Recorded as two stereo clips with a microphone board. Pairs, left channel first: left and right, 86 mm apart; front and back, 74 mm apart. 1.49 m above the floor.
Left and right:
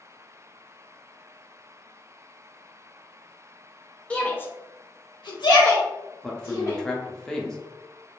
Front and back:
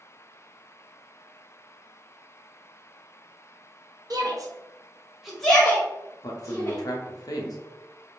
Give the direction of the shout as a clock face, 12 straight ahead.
7 o'clock.